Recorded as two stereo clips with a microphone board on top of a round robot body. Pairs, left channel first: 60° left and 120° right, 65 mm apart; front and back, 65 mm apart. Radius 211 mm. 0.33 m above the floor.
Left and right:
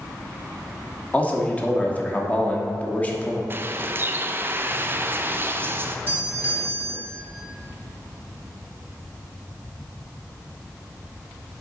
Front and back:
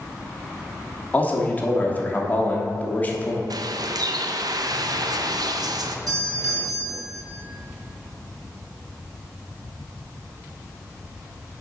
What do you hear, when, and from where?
1.1 s a man speaking: 25° left, 1.5 m
3.5 s a bird: 175° right, 0.7 m
6.1 s a doorbell: 175° right, 3 m